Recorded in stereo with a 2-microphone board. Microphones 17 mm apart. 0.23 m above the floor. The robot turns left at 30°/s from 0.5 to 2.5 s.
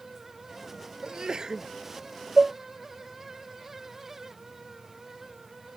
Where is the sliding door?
I don't hear a sliding door.